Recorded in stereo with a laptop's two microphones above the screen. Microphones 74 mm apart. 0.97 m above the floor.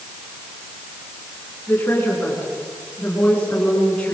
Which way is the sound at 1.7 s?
25° left (ahead or behind).